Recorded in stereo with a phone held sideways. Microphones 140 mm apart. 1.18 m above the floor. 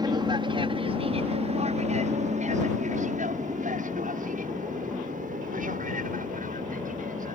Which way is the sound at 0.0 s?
30° right (ahead or behind).